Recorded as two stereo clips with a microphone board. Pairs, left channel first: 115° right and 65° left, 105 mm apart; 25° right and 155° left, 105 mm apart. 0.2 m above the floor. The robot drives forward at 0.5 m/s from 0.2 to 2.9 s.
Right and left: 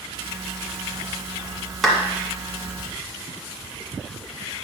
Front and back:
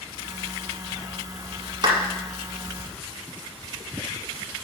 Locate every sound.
1.8 s a clap: 155° left, 1.4 m; by 2.0 s 160° left, 1.4 m